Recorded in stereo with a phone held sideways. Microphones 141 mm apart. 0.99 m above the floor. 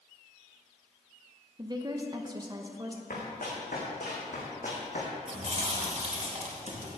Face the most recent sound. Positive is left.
turn(degrees=-55)  # may be behind; listen again after turning